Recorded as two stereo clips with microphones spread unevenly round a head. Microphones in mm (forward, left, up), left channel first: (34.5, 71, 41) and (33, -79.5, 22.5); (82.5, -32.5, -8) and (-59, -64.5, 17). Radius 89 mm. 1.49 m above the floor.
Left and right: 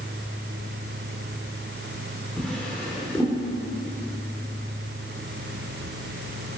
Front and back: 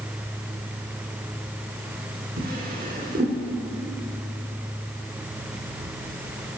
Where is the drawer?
170° left, 2.5 m.